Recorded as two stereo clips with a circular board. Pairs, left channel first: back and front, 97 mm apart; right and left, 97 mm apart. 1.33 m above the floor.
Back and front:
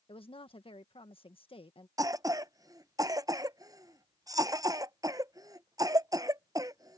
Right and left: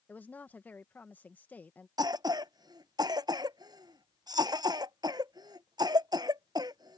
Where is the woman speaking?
160° right.